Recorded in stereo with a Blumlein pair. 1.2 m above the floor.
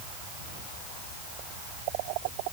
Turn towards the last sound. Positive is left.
No sound to turn to.